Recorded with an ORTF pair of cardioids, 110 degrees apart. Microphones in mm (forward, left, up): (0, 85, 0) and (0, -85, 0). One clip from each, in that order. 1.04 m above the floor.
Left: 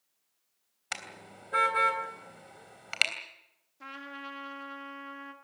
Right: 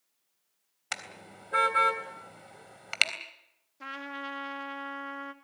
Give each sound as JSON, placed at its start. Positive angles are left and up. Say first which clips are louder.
{"t": 0.9, "sound": "a car horn", "louder": "right 1 dB", "azimuth_deg": -5, "distance_m": 3.0}
{"t": 3.8, "sound": "a trumpet", "louder": "right 4 dB", "azimuth_deg": -20, "distance_m": 2.5}